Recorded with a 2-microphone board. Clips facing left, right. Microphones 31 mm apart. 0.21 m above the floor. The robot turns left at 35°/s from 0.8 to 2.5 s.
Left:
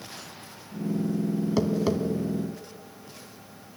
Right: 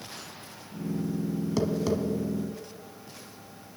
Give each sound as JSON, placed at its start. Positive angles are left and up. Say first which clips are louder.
{"t": 1.6, "sound": "tapping", "louder": "left 1 dB", "side_deg": 10, "distance_m": 1.2}